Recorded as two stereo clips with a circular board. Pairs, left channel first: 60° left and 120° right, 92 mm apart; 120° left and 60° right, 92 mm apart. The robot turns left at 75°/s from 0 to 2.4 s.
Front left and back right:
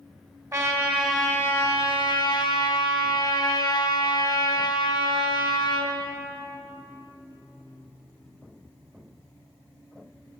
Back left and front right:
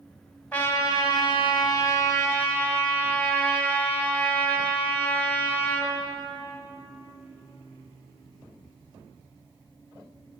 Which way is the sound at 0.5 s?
170° right.